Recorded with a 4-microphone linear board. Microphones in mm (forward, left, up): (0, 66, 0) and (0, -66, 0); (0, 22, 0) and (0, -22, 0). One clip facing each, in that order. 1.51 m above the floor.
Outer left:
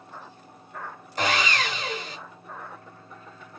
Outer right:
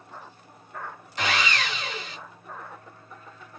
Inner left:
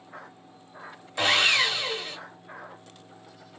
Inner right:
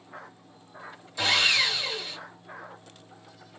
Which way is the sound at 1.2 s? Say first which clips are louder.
Outer left 2 dB, inner left 2 dB; 45° left (ahead or behind).